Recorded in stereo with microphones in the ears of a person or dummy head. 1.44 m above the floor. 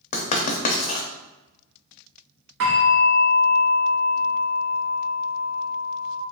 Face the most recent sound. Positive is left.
turn(degrees=-60)  # may be behind; listen again after turning